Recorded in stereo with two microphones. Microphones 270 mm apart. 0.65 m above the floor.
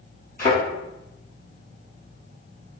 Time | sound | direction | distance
0.4 | a thud | 35° left (ahead or behind) | 1.9 m